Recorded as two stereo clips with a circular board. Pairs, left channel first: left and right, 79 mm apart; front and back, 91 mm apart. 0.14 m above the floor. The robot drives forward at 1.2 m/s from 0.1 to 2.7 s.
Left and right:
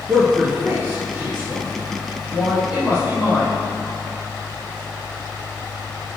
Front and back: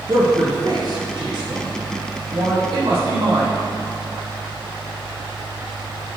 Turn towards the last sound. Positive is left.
turn(degrees=-165)